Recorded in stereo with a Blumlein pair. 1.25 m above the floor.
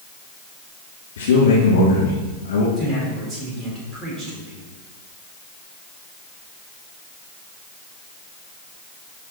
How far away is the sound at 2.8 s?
About 5 m.